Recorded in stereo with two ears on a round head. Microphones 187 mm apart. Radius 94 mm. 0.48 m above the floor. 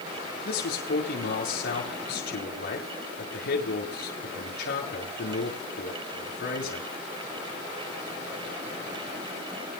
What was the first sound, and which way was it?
A man speaking, 50° left (ahead or behind).